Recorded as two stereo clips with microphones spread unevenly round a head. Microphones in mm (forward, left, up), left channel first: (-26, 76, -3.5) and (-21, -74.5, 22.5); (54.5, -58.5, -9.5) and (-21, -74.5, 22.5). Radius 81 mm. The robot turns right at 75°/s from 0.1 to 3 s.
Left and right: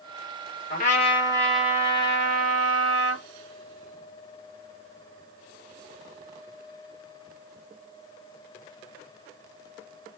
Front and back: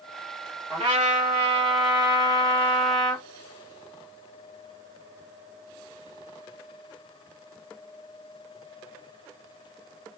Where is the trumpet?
115° left, 2 m; by 3.2 s 70° right, 2 m.